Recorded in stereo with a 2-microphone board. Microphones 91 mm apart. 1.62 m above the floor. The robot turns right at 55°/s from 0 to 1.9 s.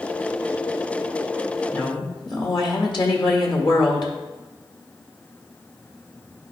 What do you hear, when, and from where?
1.7 s a woman speaking: 50° left (ahead or behind), 1.6 m; by 4.1 s 60° left (ahead or behind), 1.6 m